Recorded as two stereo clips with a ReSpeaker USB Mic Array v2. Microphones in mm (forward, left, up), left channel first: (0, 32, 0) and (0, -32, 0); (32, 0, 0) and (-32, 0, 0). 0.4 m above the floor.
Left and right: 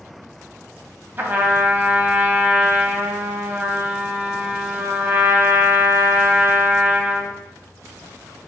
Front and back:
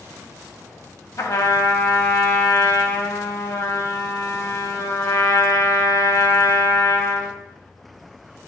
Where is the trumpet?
35° right, 0.6 m.